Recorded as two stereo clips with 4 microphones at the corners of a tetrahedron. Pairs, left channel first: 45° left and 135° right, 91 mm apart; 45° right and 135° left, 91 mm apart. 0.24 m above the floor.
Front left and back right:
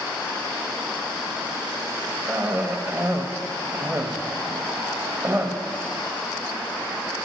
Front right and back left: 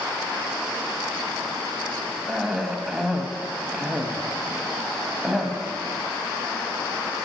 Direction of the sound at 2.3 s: 145° right.